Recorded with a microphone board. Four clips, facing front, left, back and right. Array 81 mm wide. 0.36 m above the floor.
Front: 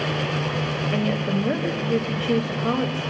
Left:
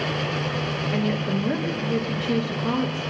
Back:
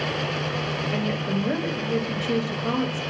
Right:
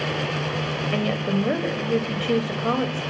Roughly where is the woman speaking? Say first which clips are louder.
Right 1 dB, front 3 dB; right.